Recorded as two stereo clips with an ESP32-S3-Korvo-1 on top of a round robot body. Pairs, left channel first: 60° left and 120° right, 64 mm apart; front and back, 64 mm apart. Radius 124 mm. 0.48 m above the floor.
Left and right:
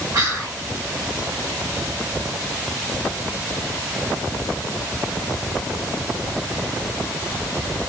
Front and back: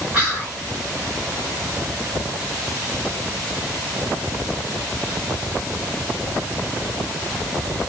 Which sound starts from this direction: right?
Whispering, at 0.1 s.